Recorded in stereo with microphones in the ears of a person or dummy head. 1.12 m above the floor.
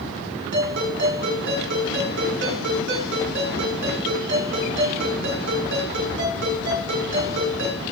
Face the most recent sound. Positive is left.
turn(degrees=-60)  # may be behind; listen again after turning